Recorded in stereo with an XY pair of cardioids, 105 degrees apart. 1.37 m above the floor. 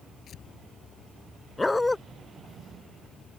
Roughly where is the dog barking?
Ahead.